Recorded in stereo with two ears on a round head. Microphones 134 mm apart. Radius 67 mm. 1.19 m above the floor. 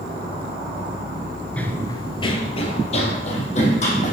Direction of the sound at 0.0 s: 65° right (ahead or behind).